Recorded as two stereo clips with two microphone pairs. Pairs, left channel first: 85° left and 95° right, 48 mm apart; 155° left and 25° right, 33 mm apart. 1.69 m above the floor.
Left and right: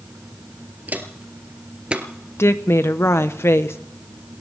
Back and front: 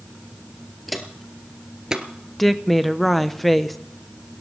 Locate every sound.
0.9 s footsteps: 115° right, 2 m; by 2.1 s 55° right, 1.8 m
2.4 s a woman speaking: 70° left, 1.1 m